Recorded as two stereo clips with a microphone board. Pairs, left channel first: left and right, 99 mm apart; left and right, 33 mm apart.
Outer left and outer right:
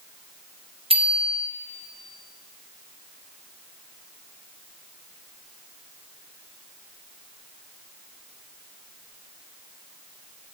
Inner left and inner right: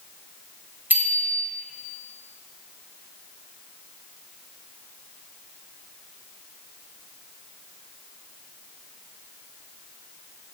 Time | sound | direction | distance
0.9 | a bicycle bell | 85° right | 6 m